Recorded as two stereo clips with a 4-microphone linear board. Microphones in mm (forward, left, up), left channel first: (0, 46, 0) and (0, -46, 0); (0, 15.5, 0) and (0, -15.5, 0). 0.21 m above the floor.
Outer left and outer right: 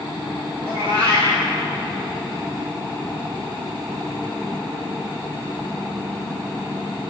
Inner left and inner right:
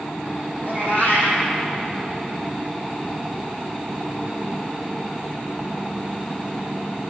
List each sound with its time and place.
0.6 s a cat meowing: 85° left, 4.5 m